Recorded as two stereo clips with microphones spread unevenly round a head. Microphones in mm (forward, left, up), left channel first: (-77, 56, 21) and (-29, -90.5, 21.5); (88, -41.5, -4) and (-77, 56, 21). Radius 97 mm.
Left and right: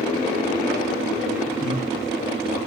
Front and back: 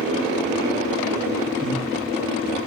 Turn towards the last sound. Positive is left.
turn(degrees=95)